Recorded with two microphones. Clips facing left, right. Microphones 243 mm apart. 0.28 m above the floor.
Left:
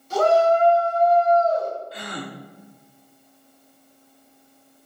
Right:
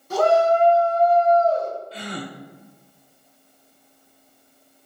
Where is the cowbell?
No cowbell in this recording.